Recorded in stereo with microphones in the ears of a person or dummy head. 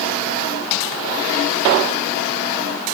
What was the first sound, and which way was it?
Only background noise.